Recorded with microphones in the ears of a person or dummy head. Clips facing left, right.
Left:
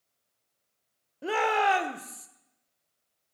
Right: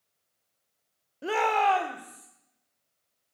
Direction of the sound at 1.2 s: 5° right (ahead or behind).